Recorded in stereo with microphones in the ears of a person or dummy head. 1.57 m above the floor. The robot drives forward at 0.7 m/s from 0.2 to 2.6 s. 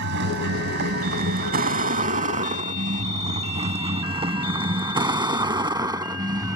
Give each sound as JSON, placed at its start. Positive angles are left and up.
{"t": 0.0, "sound": "a vehicle", "side_deg": -60}